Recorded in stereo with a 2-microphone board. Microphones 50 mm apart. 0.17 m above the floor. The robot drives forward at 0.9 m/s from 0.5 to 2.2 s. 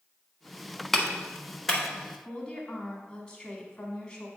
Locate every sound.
0.9 s a clap: 5° left (ahead or behind), 0.9 m; by 1.8 s centre (ahead or behind), 1.5 m
2.2 s a woman speaking: 15° left (ahead or behind), 1.2 m